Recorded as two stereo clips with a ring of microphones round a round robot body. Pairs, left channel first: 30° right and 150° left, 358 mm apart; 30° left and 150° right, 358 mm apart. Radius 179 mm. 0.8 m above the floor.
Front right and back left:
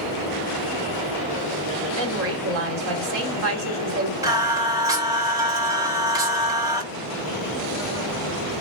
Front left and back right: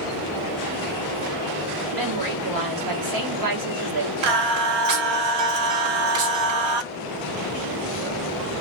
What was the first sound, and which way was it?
A woman speaking, 165° right.